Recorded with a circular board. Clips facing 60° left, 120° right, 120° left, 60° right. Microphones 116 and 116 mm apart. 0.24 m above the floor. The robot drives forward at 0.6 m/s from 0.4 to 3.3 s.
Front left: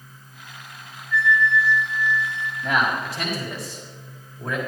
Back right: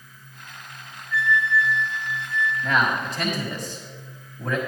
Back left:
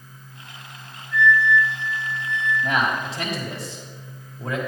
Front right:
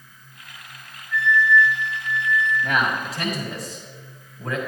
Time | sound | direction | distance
1.1 | a flute | 160° left | 3 m
2.6 | a man speaking | 120° left | 1.5 m